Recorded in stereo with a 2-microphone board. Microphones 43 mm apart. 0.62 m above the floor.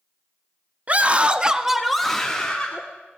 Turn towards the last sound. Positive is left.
turn(degrees=20)  # may be behind; listen again after turning